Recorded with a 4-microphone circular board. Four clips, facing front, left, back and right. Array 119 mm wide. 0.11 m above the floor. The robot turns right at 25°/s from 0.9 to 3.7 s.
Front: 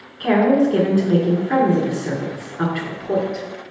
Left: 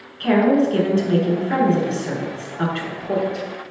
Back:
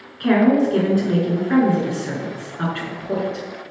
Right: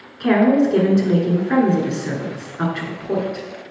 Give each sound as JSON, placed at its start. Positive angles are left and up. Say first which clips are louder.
{"t": 0.2, "sound": "a woman speaking", "louder": "right 1 dB, even", "azimuth_deg": -100, "distance_m": 1.1}